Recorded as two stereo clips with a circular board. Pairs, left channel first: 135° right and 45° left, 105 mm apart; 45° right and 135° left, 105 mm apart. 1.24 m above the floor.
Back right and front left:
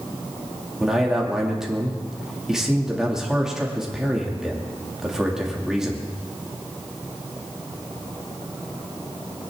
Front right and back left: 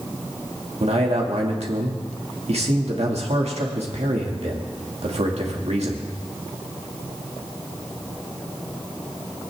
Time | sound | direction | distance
0.8 | a man speaking | 130° left | 2.5 m